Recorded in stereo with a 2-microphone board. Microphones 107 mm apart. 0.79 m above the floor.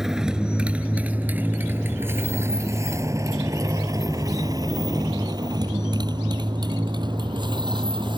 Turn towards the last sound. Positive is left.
turn(degrees=-45)  # may be behind; listen again after turning